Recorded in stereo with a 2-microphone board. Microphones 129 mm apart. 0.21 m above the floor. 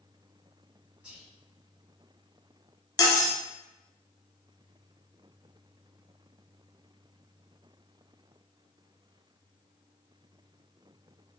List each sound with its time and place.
1.0 s whispering: 10° right (ahead or behind), 1.8 m
3.0 s cutlery clinking: 30° left (ahead or behind), 0.7 m